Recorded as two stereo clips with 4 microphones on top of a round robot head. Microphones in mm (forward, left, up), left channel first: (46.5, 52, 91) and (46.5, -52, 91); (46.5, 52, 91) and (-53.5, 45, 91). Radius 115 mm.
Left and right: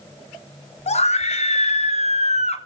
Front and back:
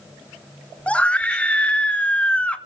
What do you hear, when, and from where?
0.9 s a scream: 80° left, 2.5 m